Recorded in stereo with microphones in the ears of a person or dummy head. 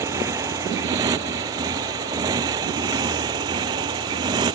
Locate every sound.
0.0 s a motorcycle: 10° right (ahead or behind); by 4.6 s 20° right (ahead or behind)